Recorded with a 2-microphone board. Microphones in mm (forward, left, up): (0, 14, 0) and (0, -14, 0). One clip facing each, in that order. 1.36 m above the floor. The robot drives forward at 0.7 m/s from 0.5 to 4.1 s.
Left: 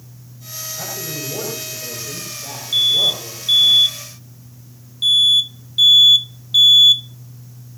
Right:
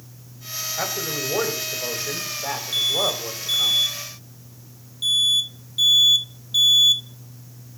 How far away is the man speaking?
About 7.5 m.